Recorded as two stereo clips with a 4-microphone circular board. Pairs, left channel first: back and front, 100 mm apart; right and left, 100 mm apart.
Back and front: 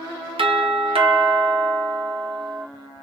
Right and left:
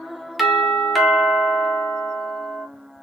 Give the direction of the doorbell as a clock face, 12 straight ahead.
12 o'clock.